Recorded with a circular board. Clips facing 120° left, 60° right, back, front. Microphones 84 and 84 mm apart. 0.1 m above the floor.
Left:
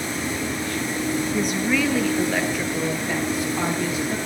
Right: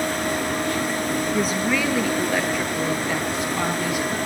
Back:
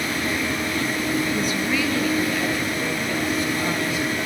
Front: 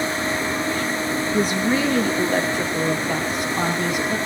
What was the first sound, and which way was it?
A woman speaking, 20° left.